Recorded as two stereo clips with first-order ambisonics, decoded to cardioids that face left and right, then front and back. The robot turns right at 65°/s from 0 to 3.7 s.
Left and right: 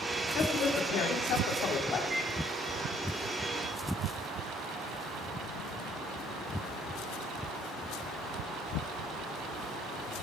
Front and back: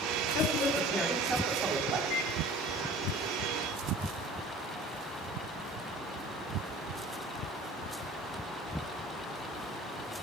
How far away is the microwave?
About 1.2 m.